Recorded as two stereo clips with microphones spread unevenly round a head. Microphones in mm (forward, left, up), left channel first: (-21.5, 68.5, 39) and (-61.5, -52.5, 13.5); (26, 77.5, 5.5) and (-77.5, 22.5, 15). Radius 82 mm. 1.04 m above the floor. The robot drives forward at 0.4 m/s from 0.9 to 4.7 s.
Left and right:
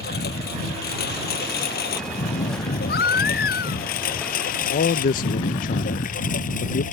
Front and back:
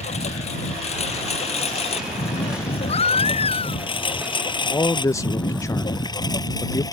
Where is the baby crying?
60° left.